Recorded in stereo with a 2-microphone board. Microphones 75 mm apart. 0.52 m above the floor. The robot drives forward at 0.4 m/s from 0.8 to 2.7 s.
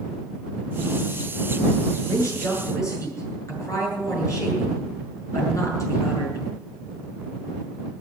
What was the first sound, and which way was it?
A woman speaking, 45° left (ahead or behind).